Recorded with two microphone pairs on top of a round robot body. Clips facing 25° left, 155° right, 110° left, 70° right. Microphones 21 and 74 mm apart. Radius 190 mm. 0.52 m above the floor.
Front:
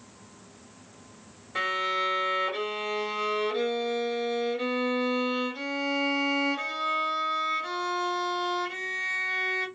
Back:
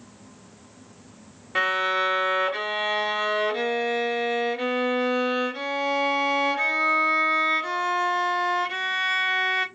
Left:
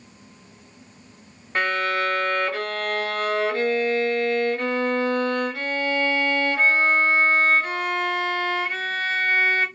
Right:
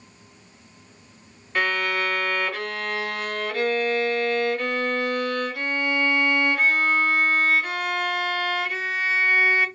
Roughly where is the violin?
Behind.